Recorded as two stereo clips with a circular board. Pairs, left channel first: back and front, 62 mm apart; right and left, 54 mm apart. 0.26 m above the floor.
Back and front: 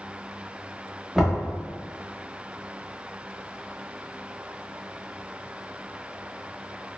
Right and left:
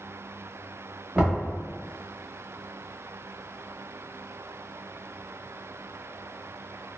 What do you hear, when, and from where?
1.1 s knocking: 80° left, 0.9 m